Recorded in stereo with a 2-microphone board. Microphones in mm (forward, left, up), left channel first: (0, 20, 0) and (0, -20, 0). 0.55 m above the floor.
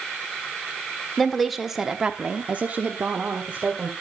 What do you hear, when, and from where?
1.2 s a woman speaking: 10° left (ahead or behind), 1.6 m; by 3.9 s 35° right (ahead or behind), 2 m